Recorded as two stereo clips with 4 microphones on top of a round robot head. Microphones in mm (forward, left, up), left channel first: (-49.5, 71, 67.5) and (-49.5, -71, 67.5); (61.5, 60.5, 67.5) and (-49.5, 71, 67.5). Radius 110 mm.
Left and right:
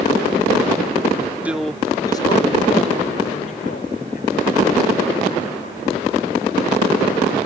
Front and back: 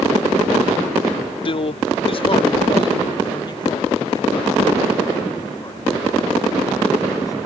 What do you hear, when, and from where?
1.4 s a man speaking: 15° right; by 7.4 s 55° left